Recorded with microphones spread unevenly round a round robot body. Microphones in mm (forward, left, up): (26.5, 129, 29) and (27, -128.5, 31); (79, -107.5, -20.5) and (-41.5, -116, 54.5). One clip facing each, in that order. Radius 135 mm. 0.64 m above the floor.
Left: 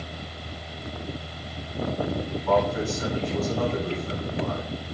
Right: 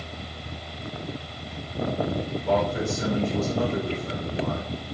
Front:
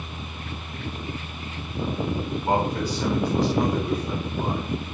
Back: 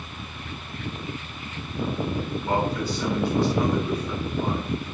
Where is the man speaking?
30° right, 6 m.